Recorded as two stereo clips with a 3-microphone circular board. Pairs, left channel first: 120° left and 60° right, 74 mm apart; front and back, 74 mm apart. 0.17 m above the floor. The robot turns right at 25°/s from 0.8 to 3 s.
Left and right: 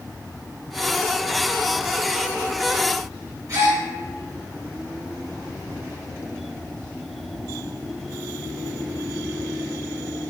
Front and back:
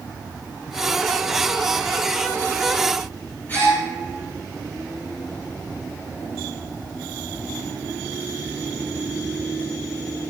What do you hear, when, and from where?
3.5 s a gasp: 50° right, 2.0 m